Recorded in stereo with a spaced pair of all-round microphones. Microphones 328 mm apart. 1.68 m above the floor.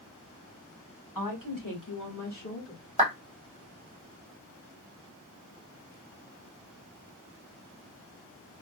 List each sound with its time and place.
1.1 s a woman speaking: 85° left, 1.6 m; by 2.8 s 40° left (ahead or behind), 1.3 m
3.0 s a clap: 20° right (ahead or behind), 1.1 m